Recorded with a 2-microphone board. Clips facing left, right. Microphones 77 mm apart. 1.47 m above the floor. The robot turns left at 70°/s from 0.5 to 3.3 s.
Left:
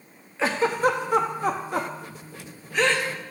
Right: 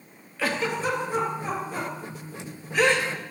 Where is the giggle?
25° left (ahead or behind), 0.9 m; by 3.1 s 25° right (ahead or behind), 0.9 m.